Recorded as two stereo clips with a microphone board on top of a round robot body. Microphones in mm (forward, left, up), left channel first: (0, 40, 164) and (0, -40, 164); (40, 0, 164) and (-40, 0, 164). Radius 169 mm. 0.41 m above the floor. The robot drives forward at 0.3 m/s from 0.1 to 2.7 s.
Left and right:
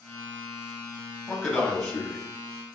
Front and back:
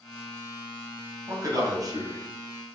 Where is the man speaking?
175° left, 1.9 m; by 2.2 s straight behind, 2 m.